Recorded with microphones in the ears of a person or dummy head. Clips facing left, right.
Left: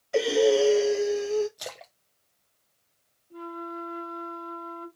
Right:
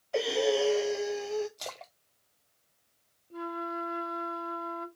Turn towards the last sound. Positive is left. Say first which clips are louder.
# right 1 dB
turn(degrees=-40)  # may be behind; listen again after turning